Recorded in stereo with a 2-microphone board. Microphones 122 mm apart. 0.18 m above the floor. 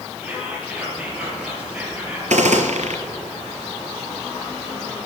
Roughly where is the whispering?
Centre.